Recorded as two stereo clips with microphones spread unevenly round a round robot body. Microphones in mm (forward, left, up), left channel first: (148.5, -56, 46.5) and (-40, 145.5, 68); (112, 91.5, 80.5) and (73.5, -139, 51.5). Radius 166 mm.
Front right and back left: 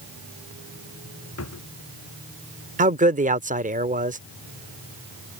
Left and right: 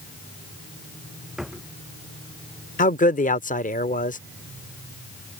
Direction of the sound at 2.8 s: 100° left.